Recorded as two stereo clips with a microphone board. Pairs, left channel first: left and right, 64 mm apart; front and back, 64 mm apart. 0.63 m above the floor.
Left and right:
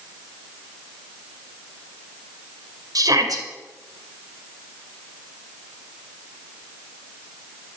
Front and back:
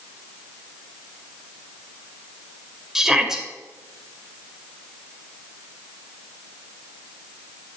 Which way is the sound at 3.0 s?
100° right.